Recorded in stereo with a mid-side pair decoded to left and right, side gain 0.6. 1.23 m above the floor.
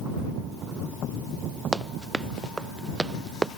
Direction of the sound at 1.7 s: 15° right.